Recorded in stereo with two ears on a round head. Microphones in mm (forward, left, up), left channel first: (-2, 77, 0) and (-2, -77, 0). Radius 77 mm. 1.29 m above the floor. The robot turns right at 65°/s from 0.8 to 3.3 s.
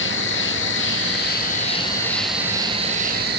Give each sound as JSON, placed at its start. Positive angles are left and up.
{"t": 0.0, "sound": "an insect", "azimuth_deg": 85}